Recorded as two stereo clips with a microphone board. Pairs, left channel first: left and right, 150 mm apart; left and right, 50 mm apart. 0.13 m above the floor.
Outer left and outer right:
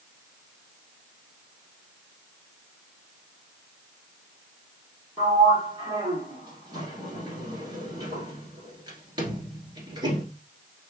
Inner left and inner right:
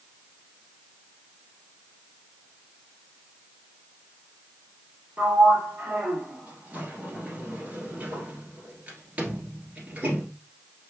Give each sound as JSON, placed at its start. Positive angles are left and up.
{"t": 5.2, "sound": "a sliding door", "side_deg": -25, "distance_m": 1.6}